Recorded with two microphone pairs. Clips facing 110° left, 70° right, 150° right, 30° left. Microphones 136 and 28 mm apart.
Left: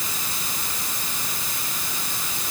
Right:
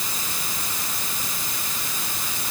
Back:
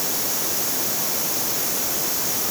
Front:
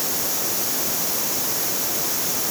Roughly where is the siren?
I don't hear a siren.